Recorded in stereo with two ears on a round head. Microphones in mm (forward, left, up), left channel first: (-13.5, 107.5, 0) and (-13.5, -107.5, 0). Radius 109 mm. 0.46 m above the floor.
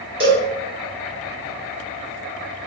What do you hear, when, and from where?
0.2 s a cowbell: 20° right (ahead or behind), 1.0 m